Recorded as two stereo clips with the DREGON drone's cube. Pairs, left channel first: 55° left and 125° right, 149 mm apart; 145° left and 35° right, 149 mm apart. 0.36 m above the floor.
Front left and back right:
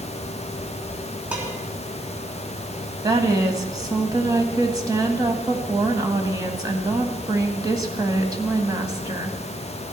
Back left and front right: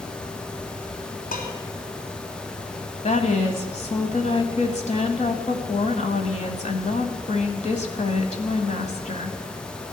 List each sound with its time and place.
1.3 s dishes clattering: 155° left, 2.5 m
3.0 s a woman speaking: 175° left, 1.7 m